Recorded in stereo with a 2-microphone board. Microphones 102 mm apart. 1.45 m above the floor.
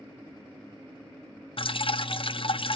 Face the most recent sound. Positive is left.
turn(degrees=60)  # may be behind; listen again after turning